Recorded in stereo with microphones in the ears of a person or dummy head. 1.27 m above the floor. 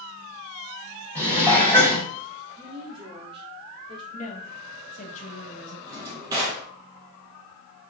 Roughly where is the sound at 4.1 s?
Left.